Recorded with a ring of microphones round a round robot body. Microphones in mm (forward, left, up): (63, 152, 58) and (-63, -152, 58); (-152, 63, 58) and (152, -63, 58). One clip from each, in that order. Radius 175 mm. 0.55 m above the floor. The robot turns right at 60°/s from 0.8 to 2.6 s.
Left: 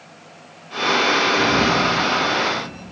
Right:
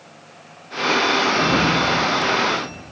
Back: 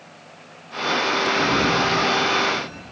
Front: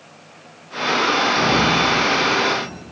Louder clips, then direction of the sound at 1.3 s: Left 1 dB, front 3 dB; 135° right.